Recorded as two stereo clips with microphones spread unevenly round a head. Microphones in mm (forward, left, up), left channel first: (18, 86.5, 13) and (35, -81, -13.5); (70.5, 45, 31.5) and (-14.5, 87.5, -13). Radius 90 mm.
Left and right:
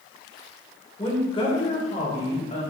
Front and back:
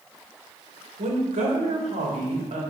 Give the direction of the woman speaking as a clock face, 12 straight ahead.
7 o'clock.